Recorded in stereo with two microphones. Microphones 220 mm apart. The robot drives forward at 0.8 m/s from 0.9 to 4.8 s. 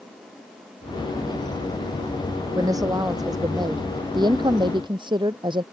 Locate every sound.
2.5 s a woman speaking: 15° right (ahead or behind); by 5.6 s 20° right (ahead or behind)